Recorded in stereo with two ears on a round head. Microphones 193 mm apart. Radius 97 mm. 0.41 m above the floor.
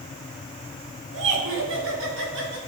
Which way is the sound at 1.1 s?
70° right (ahead or behind).